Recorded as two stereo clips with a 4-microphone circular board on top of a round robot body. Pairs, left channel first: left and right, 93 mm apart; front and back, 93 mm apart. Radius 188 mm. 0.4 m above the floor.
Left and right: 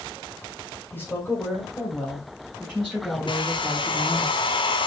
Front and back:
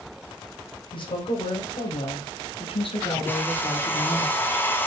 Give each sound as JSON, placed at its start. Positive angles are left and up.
{"t": 0.9, "sound": "a woman speaking", "azimuth_deg": 25, "distance_m": 3.0}
{"t": 3.3, "sound": "a hair dryer", "azimuth_deg": 65, "distance_m": 1.9}